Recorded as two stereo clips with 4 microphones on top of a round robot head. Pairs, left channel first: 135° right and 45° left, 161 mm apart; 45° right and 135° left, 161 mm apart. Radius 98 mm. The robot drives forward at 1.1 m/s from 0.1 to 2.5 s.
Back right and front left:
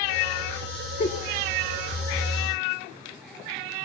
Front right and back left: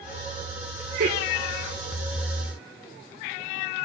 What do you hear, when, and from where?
1.0 s a giggle: 175° left, 1.6 m